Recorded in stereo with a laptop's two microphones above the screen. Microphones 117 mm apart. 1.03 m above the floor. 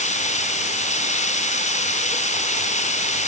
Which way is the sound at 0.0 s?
85° left.